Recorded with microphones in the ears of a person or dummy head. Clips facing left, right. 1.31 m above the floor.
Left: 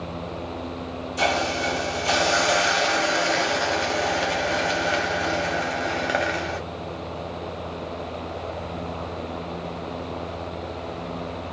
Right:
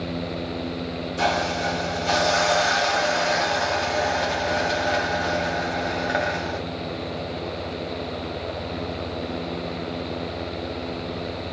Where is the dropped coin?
No dropped coin in this recording.